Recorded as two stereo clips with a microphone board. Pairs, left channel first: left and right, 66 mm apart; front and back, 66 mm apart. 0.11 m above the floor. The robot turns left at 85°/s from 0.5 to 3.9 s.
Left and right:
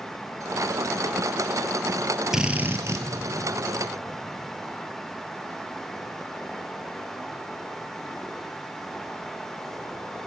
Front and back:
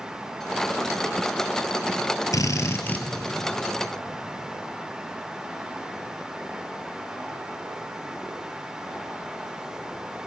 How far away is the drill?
About 1.7 m.